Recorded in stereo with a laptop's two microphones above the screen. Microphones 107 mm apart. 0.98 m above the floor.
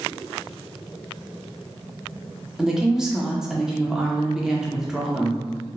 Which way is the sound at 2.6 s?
5° right (ahead or behind).